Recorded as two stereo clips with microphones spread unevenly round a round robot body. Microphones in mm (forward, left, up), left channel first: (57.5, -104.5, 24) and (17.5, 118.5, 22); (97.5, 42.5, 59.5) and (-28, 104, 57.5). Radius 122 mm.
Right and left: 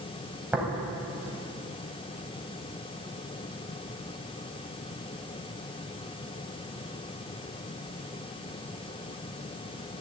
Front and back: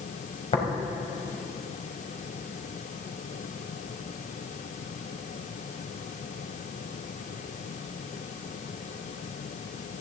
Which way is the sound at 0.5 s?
20° left.